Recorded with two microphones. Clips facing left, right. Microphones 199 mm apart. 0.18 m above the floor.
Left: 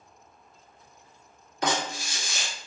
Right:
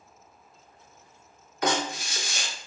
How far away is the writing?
About 1.5 m.